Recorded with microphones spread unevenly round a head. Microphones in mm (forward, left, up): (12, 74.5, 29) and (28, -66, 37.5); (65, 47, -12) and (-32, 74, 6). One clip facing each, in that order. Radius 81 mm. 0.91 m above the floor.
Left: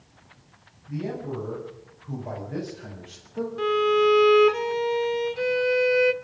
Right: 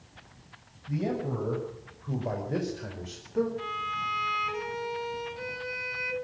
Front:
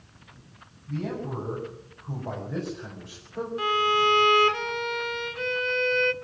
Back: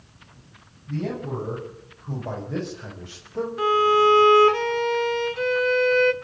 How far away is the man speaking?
About 6.5 m.